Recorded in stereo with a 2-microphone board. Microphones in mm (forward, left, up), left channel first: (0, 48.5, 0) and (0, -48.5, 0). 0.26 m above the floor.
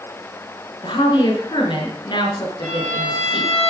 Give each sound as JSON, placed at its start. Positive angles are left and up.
{"t": 0.8, "sound": "a woman speaking", "side_deg": 55, "distance_m": 4.0}
{"t": 2.6, "sound": "a violin", "side_deg": 20, "distance_m": 4.5}